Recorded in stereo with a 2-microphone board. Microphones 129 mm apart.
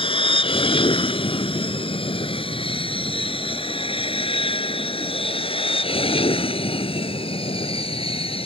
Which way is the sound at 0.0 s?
45° left (ahead or behind).